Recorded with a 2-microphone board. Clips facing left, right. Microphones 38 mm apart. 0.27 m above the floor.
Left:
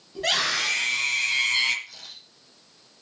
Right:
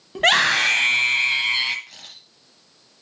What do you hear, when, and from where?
0.1 s a scream: 55° right (ahead or behind), 1.7 m; by 1.8 s 15° right (ahead or behind), 1.4 m
1.9 s a camera shutter: 45° right (ahead or behind), 4.5 m